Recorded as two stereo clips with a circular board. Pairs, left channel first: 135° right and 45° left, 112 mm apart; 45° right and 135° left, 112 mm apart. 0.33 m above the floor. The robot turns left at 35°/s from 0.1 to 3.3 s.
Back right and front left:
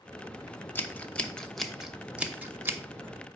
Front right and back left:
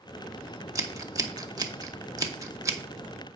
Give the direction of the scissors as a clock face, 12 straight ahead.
6 o'clock.